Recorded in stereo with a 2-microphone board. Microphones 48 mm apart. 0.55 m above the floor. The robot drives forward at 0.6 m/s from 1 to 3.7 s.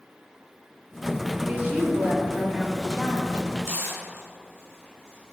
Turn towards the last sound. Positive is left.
turn(degrees=-75)  # may be behind; listen again after turning